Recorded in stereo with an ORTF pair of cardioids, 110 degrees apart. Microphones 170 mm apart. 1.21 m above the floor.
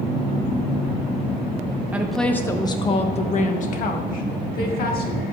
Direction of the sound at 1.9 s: 10° right.